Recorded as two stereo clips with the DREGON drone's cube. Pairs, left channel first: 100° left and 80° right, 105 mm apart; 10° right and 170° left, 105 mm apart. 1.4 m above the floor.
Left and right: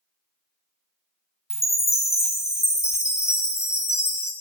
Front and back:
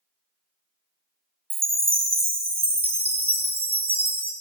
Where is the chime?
160° left, 0.6 m.